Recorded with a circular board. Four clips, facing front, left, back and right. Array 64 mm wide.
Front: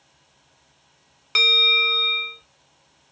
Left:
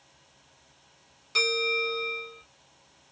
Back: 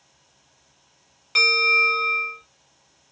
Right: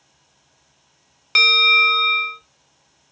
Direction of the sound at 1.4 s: 65° right.